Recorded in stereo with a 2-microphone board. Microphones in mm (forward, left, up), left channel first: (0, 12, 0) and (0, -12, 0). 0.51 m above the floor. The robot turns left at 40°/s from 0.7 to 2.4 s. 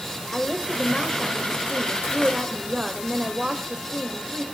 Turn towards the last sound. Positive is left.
turn(degrees=-40)